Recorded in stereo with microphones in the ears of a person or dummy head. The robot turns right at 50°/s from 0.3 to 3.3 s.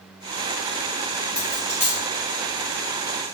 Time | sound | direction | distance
1.4 | a dropped coin | 5° left (ahead or behind) | 0.6 m